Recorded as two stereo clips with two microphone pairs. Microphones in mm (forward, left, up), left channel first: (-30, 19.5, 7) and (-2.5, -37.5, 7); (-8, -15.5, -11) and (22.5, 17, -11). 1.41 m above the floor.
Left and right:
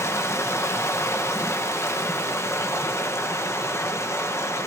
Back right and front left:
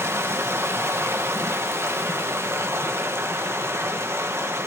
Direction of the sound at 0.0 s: 70° left.